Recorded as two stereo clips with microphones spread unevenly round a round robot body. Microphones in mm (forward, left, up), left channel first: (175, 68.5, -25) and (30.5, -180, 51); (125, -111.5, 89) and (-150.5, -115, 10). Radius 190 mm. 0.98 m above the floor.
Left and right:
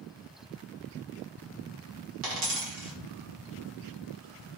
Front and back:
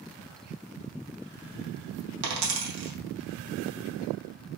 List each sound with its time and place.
2.2 s a dropped coin: 150° right, 0.9 m